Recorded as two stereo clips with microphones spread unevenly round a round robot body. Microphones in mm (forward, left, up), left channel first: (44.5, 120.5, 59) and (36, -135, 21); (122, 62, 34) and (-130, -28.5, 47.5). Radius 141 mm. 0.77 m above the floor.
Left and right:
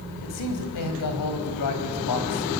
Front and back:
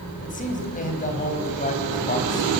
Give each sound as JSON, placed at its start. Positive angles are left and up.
{"t": 0.2, "sound": "a man speaking", "azimuth_deg": 80, "distance_m": 4.0}